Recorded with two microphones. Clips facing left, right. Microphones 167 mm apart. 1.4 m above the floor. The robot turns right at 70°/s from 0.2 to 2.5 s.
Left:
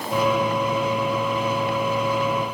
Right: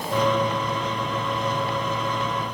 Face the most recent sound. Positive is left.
No sound to turn to.